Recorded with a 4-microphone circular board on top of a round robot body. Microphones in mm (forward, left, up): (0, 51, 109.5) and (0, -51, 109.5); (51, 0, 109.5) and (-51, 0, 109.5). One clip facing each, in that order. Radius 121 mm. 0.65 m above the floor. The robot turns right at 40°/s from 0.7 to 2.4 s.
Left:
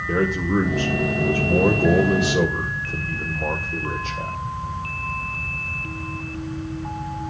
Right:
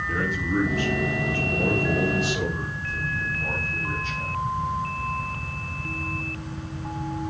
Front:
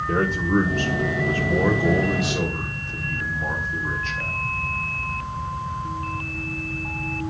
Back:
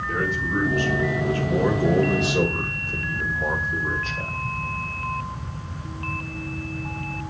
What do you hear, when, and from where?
0.1 s a man speaking: 55° left, 2.5 m; by 4.3 s 125° left, 2.5 m